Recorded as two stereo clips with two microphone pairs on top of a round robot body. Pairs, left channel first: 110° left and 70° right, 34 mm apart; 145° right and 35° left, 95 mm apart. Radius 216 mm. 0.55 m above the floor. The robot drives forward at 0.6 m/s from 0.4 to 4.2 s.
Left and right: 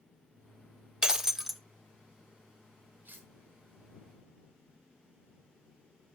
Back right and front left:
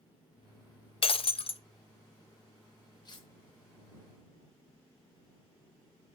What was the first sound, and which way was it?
Breaking glass, 140° right.